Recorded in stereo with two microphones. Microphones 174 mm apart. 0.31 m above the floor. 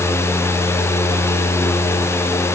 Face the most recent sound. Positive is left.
No sound to turn to.